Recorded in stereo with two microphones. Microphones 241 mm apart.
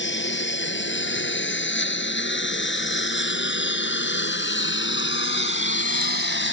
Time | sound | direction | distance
0.0 | a lawn mower | 50° left (ahead or behind) | ?